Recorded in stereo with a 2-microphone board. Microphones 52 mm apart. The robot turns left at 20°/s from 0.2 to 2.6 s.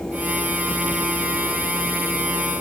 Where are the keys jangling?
No keys jangling in this recording.